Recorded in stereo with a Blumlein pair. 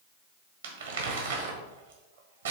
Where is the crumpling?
65° right, 1.6 m.